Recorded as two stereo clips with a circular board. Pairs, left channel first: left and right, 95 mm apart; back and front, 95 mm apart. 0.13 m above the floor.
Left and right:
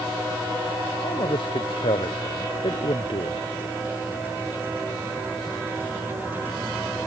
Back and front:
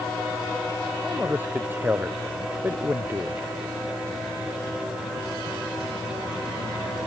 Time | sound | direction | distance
1.0 | a man speaking | 70° left | ?